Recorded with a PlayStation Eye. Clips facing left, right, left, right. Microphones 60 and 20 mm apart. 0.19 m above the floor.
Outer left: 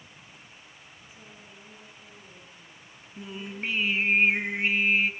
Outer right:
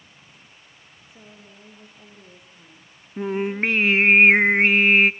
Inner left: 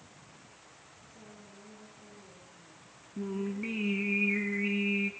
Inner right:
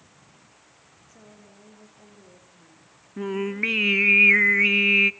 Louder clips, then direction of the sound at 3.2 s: Outer right 13 dB, inner right 9 dB; 60° right (ahead or behind).